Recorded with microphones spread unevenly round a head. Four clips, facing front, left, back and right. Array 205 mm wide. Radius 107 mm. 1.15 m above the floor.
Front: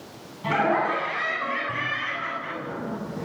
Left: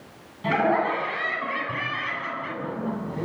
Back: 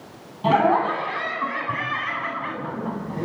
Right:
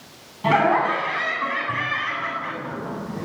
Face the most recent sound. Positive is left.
turn(degrees=175)